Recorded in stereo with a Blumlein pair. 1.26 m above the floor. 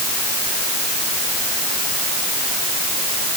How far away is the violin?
I don't hear a violin.